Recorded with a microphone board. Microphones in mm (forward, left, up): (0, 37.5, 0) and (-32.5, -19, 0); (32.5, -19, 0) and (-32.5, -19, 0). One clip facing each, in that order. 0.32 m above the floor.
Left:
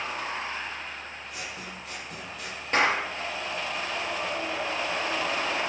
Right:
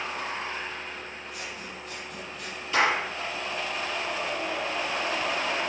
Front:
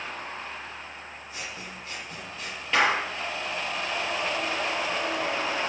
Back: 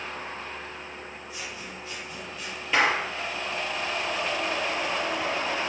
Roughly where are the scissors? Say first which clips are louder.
Even, front 1 dB; ahead left.